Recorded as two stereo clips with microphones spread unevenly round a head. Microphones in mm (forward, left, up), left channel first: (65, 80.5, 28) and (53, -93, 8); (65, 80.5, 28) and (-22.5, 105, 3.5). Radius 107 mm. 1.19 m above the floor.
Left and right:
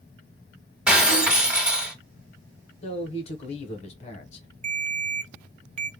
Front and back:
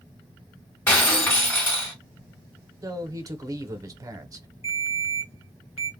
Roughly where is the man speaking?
Behind left.